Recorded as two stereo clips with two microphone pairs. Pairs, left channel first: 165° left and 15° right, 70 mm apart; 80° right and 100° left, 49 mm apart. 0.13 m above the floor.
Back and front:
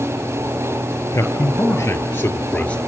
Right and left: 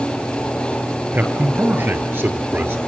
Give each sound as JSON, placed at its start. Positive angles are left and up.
{"t": 1.1, "sound": "a man speaking", "azimuth_deg": 135, "distance_m": 2.5}